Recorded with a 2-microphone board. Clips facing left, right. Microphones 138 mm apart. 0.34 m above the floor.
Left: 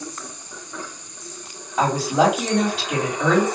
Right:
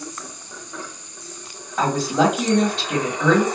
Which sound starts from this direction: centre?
A woman speaking, at 1.8 s.